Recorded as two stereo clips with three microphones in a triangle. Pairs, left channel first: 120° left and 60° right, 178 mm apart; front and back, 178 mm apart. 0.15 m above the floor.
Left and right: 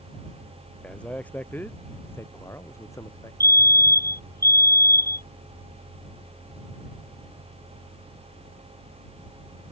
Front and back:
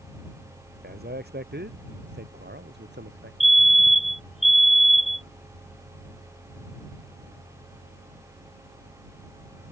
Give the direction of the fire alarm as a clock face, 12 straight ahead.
2 o'clock.